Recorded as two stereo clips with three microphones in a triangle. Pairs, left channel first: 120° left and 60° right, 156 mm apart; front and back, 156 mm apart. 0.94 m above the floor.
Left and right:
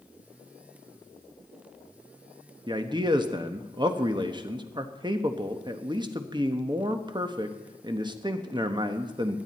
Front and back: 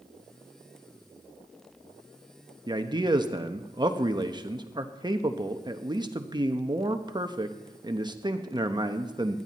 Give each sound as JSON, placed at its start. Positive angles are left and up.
{"t": 2.7, "sound": "a man speaking", "azimuth_deg": -120, "distance_m": 1.0}